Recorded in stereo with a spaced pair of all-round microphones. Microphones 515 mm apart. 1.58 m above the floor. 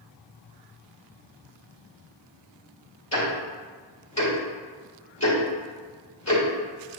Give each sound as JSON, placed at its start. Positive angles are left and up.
{"t": 3.1, "sound": "ticking", "side_deg": 30, "distance_m": 2.0}